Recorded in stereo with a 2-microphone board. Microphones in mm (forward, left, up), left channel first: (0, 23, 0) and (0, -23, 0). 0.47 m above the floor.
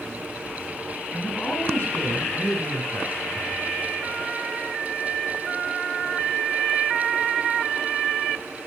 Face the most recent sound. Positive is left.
turn(degrees=55)  # may be behind; listen again after turning